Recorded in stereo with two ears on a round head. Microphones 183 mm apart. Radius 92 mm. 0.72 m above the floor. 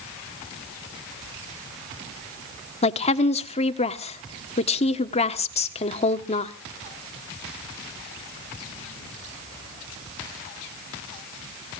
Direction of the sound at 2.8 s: 30° left (ahead or behind).